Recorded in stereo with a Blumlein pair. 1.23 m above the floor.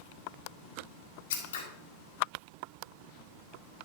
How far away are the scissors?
About 2.0 m.